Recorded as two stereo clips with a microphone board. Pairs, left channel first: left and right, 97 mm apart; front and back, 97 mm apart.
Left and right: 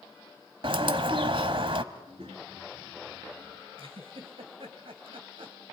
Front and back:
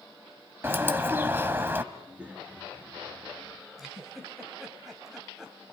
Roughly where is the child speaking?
Right.